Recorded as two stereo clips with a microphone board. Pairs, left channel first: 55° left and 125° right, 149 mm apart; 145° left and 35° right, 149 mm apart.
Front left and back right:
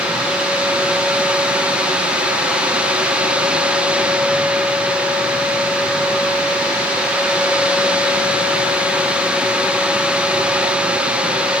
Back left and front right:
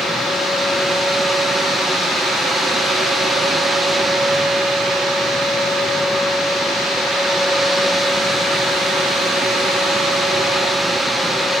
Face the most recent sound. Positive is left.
No sound to turn to.